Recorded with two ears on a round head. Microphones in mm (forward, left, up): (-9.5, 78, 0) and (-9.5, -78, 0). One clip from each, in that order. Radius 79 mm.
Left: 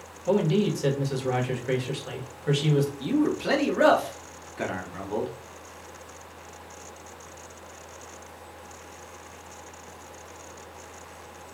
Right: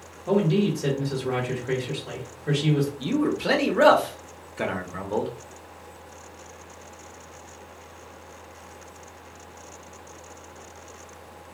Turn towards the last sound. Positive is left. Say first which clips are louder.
# right 1 dB
turn(degrees=-5)  # may be behind; listen again after turning